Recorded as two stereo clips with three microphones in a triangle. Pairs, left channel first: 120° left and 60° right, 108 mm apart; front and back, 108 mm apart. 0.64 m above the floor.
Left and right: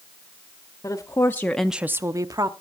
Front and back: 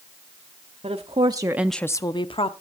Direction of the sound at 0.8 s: 175° left.